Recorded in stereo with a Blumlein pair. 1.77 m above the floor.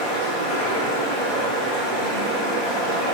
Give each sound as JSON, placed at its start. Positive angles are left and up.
{"t": 0.0, "sound": "running water", "azimuth_deg": 45, "distance_m": 1.0}